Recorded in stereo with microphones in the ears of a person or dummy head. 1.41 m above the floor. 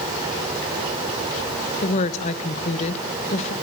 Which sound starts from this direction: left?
A woman speaking, at 1.8 s.